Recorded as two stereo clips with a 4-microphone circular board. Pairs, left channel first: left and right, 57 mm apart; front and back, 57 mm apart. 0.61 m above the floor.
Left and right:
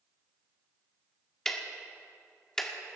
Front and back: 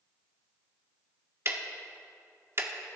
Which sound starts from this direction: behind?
Ticking, at 1.4 s.